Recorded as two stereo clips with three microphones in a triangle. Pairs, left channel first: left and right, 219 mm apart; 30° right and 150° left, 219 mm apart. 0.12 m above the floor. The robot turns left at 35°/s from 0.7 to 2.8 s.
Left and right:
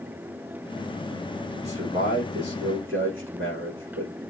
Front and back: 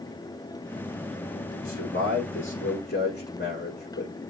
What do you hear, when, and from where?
1.6 s a man speaking: 30° right, 6.5 m; by 4.1 s 70° right, 6.5 m